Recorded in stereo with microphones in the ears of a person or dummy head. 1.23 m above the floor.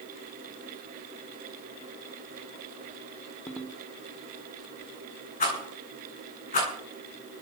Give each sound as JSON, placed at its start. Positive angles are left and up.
{"t": 3.5, "sound": "a ringtone", "side_deg": 5, "distance_m": 2.5}
{"t": 5.4, "sound": "a rattle", "side_deg": 35, "distance_m": 9.0}